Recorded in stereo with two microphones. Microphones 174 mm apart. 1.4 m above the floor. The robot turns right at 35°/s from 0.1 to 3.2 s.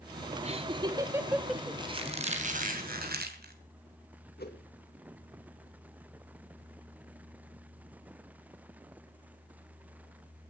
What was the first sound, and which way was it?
Laughter, 40° right (ahead or behind).